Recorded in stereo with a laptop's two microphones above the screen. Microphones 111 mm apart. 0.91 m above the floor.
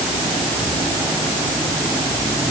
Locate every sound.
Only background noise.